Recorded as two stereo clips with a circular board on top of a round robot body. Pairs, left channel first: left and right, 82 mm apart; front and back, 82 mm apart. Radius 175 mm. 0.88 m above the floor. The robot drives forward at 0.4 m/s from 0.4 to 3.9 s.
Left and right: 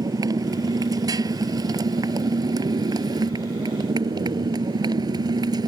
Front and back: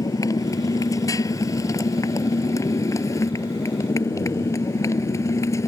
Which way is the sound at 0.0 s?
50° right.